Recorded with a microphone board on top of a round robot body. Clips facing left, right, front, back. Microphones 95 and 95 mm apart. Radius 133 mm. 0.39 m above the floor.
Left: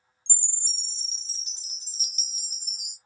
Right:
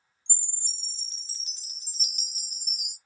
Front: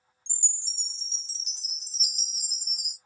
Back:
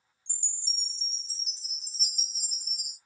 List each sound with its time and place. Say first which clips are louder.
0.3 s a chime: left 4 dB, back 2 dB; 20° left, 0.8 m